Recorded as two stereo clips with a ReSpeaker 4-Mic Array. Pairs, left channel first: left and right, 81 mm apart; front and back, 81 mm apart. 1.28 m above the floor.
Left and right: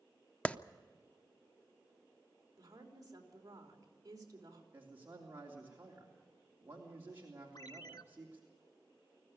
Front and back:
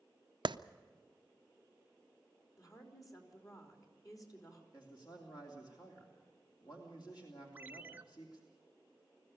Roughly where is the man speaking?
Ahead right.